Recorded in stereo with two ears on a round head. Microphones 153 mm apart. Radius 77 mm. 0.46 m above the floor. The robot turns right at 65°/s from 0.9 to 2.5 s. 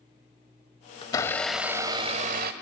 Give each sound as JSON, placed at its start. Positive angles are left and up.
{"t": 1.0, "sound": "a blender", "azimuth_deg": 150, "distance_m": 1.1}